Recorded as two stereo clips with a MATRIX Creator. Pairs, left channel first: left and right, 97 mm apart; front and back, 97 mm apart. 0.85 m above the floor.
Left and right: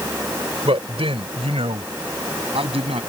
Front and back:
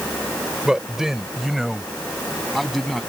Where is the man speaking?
100° right; by 3.0 s 90° right.